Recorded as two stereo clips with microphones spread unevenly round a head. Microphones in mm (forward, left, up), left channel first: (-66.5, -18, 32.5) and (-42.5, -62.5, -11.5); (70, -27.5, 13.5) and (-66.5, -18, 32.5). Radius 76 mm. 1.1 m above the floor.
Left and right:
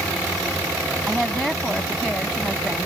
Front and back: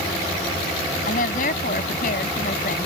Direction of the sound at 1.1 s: 35° left.